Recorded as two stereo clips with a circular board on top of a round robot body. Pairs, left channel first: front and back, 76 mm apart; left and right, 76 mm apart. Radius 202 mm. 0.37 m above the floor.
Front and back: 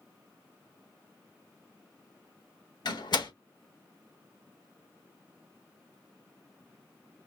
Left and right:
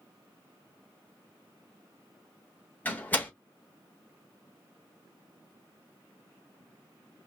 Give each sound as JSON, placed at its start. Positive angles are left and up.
{"t": 2.9, "sound": "a door slam", "azimuth_deg": 20, "distance_m": 2.5}